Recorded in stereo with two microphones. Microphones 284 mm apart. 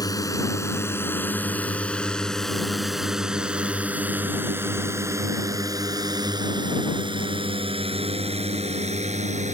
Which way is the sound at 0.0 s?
15° left (ahead or behind).